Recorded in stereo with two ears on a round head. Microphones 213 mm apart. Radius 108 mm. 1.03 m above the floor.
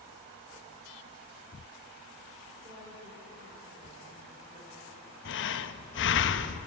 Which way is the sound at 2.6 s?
20° right (ahead or behind).